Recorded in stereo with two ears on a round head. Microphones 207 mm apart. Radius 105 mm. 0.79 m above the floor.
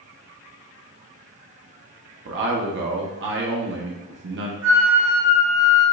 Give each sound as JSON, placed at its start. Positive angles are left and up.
{"t": 2.2, "sound": "a man speaking", "side_deg": -55, "distance_m": 0.9}
{"t": 4.6, "sound": "a flute", "side_deg": -65, "distance_m": 1.9}